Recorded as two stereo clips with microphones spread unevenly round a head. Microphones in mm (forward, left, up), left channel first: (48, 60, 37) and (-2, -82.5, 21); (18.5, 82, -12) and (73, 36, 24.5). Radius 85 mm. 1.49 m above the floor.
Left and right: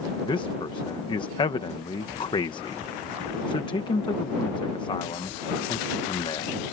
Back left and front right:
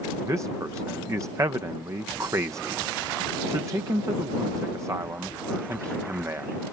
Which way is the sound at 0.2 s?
10° left.